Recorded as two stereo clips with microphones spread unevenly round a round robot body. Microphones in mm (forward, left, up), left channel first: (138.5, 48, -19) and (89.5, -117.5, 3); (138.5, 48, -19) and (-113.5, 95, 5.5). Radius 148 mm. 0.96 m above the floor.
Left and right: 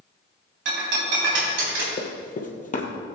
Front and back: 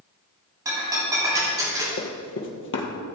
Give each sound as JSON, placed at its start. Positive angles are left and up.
{"t": 0.7, "sound": "breaking glass", "azimuth_deg": -110, "distance_m": 3.0}
{"t": 2.0, "sound": "running footsteps", "azimuth_deg": 30, "distance_m": 1.9}